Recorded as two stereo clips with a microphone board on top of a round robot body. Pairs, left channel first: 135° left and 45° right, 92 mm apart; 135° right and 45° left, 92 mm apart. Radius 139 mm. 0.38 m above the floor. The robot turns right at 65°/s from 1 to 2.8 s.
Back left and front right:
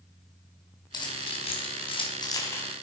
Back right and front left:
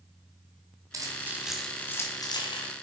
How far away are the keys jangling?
About 3 m.